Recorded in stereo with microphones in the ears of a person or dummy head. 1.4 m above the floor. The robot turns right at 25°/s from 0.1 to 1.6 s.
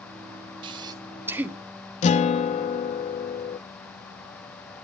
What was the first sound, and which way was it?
Breathing, 35° right (ahead or behind).